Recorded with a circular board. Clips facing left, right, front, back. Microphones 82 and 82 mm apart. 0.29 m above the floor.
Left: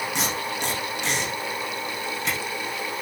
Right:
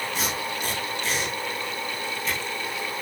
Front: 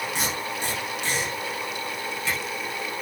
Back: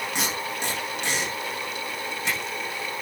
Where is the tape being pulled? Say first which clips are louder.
Left 1 dB, even; 110° left, 9 m.